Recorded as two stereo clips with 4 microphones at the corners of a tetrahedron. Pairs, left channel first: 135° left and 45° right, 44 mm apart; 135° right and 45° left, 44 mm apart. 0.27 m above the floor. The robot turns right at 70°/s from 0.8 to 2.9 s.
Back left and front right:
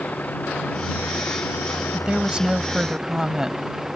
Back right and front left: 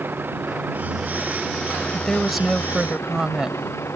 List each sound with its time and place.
0.0 s a vehicle: 80° left; by 4.0 s 130° right
1.9 s a woman speaking: 65° right; by 3.6 s straight ahead